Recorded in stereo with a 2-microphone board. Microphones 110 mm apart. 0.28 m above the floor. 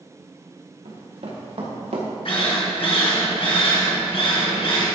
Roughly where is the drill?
Left.